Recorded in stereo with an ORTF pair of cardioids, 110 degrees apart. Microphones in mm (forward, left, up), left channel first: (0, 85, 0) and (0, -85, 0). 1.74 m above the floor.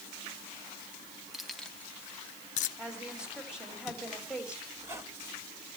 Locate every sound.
1.3 s keys jangling: straight ahead, 1.9 m; by 2.7 s 75° left, 0.9 m
2.8 s a woman speaking: 5° right, 6 m
4.8 s a squeak: 15° right, 2.5 m